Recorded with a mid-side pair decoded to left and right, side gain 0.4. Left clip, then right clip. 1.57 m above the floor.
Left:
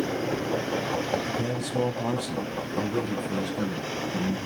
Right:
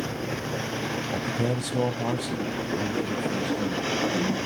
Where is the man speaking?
65° right, 0.5 m; by 4.4 s 25° left, 1.8 m.